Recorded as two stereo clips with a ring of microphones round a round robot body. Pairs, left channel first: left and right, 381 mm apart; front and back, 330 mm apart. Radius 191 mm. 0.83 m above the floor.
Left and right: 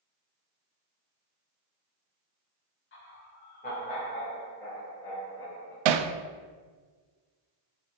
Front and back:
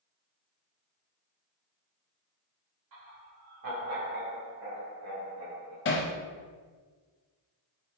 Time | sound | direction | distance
2.9 | laughter | 150° left | 1.7 m
5.8 | hammering | 60° right | 0.5 m